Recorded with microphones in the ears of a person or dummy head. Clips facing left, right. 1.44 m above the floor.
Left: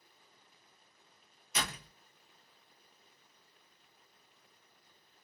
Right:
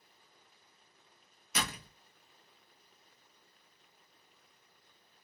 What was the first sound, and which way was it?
A door slam, 45° right (ahead or behind).